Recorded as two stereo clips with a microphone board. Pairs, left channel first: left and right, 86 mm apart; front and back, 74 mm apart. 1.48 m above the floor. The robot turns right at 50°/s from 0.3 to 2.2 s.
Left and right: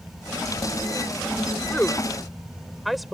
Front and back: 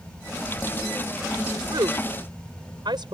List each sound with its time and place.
1.7 s a woman speaking: 155° left; by 3.1 s straight behind